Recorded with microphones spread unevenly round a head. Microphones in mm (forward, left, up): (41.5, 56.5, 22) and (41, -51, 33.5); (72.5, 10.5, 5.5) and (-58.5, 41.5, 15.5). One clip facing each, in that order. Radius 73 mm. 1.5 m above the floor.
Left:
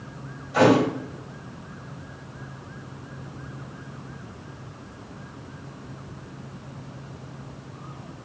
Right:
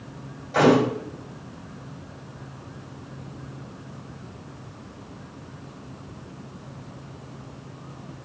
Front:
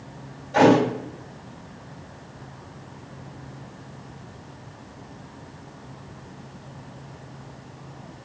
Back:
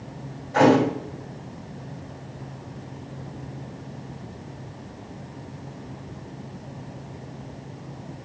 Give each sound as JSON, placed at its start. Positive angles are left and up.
{"t": 0.5, "sound": "a thud", "azimuth_deg": -80, "distance_m": 1.9}